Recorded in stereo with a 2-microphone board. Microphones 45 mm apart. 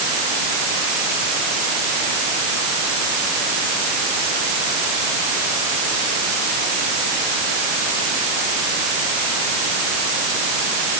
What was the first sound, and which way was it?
Only background noise.